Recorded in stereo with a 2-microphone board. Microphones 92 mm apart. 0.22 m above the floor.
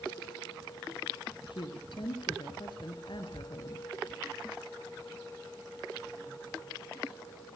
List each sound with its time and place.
1.5 s a woman speaking: 65° left (ahead or behind), 4 m